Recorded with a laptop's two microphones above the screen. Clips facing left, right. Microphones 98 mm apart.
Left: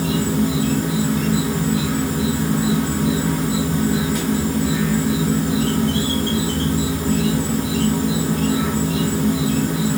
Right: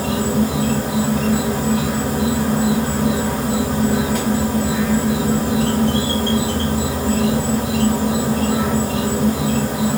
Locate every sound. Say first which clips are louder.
0.0 s an insect: right 1 dB; 70° right (ahead or behind), 2.5 m